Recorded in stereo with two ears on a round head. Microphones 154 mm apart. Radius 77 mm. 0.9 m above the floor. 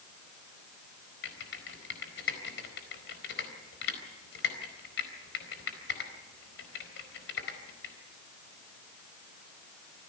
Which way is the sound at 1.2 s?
75° left (ahead or behind).